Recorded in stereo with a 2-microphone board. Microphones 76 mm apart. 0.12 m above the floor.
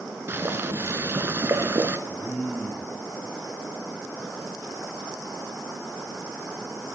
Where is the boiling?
30° right (ahead or behind), 0.6 m.